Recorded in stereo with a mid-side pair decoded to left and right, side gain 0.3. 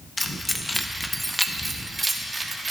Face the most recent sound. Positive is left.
turn(degrees=-40)